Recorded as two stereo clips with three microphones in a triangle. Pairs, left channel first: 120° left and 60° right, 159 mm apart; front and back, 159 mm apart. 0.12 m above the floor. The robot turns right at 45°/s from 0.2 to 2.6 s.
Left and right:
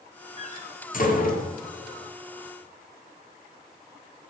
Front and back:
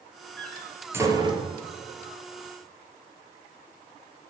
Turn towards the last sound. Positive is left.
turn(degrees=180)